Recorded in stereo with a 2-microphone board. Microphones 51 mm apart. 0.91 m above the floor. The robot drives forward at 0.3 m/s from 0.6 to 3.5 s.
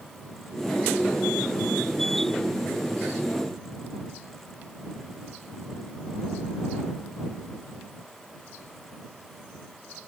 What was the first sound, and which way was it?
Only background noise.